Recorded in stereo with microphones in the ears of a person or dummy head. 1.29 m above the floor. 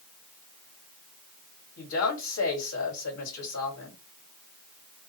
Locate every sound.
1.8 s a woman speaking: 80° left, 2.5 m